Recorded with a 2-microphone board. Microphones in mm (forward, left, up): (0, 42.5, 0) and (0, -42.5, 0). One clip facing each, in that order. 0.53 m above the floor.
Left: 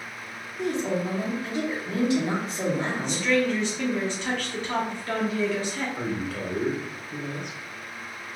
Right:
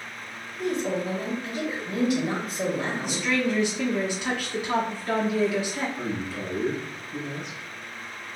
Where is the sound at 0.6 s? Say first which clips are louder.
Even; 30° left (ahead or behind), 1.3 m.